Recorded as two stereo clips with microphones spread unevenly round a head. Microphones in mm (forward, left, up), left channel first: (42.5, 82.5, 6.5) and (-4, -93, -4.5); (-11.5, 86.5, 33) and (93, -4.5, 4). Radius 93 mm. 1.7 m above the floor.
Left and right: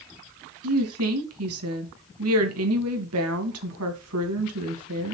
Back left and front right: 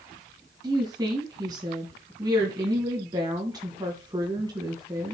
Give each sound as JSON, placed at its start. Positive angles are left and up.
{"t": 0.6, "sound": "a woman speaking", "azimuth_deg": -115, "distance_m": 1.9}